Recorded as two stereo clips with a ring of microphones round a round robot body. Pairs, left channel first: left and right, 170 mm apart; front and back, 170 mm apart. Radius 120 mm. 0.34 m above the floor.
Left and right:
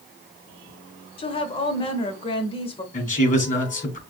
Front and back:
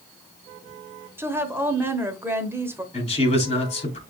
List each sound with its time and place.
1.2 s a woman speaking: 115° left, 0.9 m
2.9 s a man speaking: 50° left, 2.5 m